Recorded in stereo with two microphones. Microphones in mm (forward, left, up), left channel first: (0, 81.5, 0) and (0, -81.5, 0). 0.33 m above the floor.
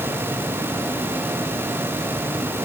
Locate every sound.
Only background noise.